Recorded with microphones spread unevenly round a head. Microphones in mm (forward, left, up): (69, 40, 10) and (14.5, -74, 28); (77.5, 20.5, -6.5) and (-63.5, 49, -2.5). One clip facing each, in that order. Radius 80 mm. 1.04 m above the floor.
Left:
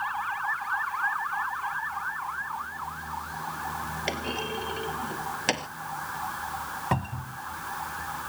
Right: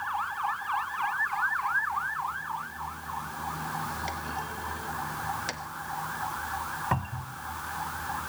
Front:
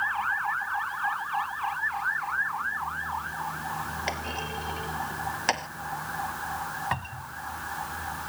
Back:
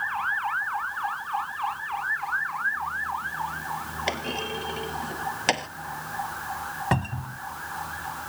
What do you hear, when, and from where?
4.1 s a clunk: 110° left
6.9 s a cupboard door: 135° left